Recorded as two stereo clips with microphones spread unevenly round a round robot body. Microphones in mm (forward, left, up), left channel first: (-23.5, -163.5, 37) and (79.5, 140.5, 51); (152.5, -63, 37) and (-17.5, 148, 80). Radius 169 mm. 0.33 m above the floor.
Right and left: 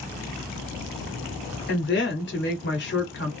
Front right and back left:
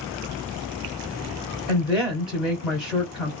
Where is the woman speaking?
135° right, 1.2 m.